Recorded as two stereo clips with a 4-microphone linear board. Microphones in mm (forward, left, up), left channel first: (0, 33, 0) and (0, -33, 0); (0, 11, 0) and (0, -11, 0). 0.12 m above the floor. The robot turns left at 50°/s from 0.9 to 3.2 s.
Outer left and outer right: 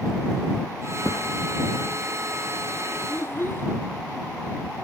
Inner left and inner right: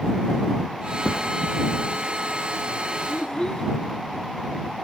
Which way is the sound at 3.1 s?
35° left (ahead or behind).